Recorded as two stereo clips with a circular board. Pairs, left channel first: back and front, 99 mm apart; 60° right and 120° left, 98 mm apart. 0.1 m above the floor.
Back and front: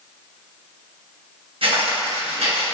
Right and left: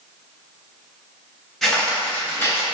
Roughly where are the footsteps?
Ahead left.